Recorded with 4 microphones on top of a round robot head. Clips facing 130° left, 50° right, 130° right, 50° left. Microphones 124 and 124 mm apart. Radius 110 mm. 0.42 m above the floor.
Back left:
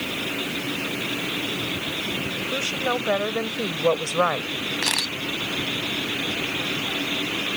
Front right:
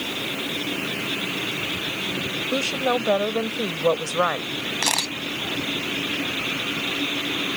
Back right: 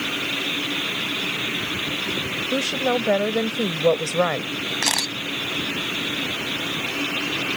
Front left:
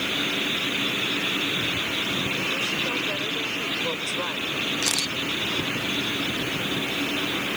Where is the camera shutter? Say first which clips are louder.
Front right 2 dB, back right 3 dB; 100° right.